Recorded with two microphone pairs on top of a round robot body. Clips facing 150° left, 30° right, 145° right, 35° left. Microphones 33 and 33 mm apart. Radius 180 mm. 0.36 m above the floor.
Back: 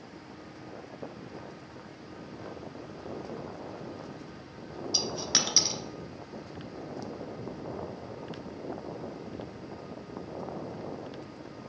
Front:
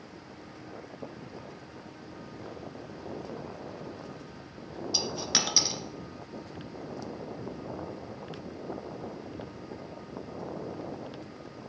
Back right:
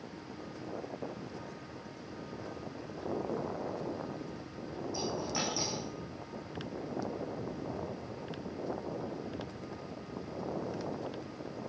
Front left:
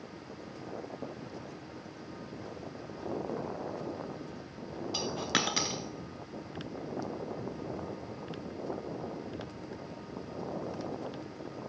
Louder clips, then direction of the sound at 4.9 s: Even, front left 4 dB; 55° left.